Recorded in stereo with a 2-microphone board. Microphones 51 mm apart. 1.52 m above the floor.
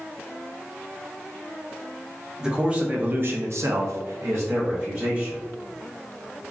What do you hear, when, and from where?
2.4 s a man speaking: 20° right (ahead or behind), 0.8 m; by 5.4 s 40° right (ahead or behind), 1.1 m